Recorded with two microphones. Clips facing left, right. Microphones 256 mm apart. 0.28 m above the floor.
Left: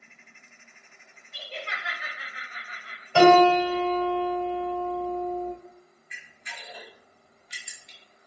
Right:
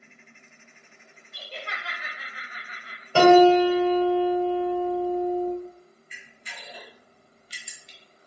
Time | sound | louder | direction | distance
1.3 | laughter | left 1 dB | 35° left (ahead or behind) | 1.1 m
3.1 | a piano | right 3 dB | 35° right (ahead or behind) | 1.6 m
6.1 | a camera shutter | right 1 dB | 35° right (ahead or behind) | 0.8 m